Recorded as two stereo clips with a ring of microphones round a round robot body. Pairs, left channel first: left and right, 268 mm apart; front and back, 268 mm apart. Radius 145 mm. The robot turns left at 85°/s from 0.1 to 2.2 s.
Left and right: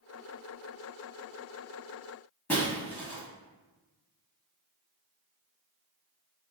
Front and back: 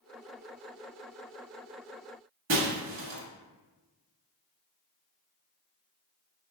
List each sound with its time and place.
2.5 s breaking glass: 170° left, 0.9 m